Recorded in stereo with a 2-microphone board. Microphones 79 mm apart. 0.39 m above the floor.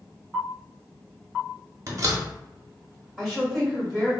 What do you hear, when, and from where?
1.9 s a door slam: 45° right (ahead or behind), 0.8 m
3.2 s a woman speaking: 5° right (ahead or behind), 1.2 m